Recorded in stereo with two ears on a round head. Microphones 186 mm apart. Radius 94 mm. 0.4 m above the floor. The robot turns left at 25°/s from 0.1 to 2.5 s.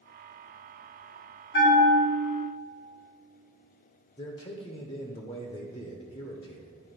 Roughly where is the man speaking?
Left.